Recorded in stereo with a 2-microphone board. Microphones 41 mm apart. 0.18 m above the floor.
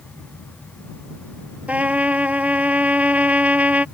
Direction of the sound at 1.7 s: 35° right (ahead or behind).